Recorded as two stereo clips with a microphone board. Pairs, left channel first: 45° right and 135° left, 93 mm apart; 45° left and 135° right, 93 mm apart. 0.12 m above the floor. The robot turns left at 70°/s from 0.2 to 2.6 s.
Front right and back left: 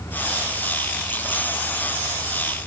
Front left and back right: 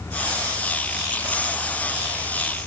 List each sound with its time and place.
Only background noise.